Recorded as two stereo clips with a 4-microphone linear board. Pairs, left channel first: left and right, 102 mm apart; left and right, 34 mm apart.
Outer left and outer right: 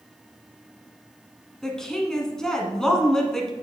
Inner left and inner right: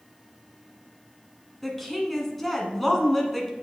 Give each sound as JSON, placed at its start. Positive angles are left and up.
{"t": 1.6, "sound": "a woman speaking", "side_deg": 5, "distance_m": 1.4}